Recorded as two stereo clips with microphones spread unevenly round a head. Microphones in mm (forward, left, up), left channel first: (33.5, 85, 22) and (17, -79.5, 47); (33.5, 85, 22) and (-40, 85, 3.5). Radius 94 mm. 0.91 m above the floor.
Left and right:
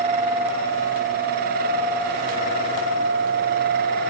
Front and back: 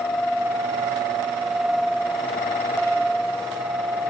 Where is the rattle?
No rattle in this recording.